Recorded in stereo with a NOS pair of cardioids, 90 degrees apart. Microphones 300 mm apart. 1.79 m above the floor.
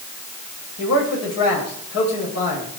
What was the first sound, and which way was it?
A man speaking, 55° left.